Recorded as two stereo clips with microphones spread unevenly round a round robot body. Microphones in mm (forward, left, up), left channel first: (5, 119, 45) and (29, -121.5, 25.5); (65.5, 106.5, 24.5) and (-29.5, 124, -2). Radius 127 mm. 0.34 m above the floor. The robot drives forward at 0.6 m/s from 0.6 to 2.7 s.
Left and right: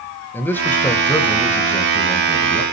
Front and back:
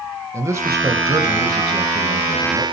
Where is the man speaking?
Straight behind, 1.7 m.